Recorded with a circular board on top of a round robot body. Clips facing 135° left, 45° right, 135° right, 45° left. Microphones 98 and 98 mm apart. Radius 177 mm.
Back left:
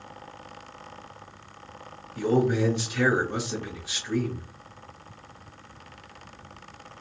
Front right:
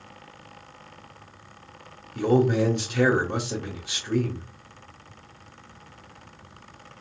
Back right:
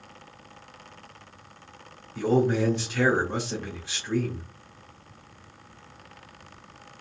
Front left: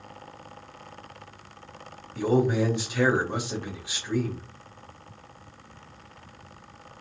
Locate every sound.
2.1 s a man speaking: 30° right, 1.8 m